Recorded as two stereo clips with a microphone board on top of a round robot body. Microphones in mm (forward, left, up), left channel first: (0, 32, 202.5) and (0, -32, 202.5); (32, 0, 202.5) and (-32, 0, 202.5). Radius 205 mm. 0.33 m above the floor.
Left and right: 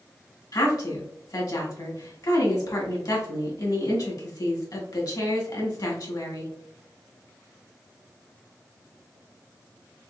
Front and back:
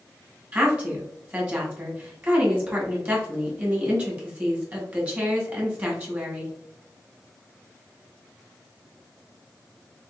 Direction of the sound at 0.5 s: 110° left.